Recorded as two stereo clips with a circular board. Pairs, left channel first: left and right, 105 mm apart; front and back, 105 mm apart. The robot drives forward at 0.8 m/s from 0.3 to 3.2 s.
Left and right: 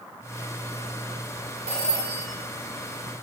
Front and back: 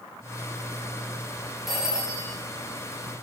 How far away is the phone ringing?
About 3 m.